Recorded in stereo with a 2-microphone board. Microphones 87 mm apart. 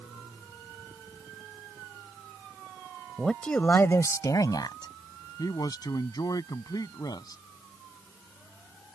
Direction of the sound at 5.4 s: 50° left (ahead or behind).